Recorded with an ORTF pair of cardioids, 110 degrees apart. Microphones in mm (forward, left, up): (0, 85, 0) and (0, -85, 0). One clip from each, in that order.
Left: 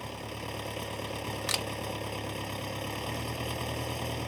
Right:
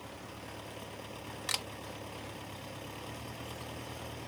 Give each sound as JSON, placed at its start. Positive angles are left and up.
{"t": 0.0, "sound": "an engine running", "azimuth_deg": 60}
{"t": 1.5, "sound": "a camera shutter", "azimuth_deg": 20}